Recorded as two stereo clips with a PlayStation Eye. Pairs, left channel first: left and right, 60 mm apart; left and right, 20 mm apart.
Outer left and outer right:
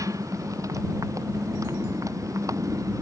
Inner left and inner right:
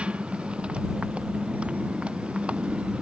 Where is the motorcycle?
70° right (ahead or behind).